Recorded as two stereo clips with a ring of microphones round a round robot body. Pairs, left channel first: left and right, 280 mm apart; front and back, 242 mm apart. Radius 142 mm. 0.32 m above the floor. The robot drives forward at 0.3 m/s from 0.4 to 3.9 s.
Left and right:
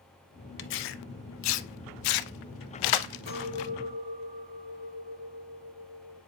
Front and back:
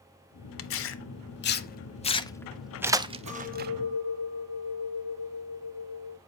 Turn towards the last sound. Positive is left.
turn(degrees=-150)